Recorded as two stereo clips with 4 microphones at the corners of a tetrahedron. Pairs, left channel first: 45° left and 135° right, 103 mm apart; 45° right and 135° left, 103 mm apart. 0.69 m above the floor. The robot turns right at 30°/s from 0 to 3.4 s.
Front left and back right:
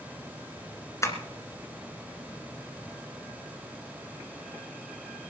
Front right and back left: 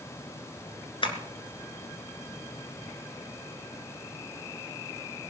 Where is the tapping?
15° right, 2 m; by 1.2 s 10° right, 2 m.